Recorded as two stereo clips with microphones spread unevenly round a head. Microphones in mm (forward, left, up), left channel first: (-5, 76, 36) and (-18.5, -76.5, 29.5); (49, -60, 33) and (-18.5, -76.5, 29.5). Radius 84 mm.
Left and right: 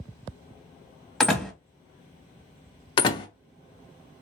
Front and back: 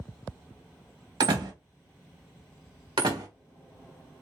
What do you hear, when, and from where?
1.2 s a door slam: 175° left, 1.0 m
3.0 s a door slam: 145° left, 0.7 m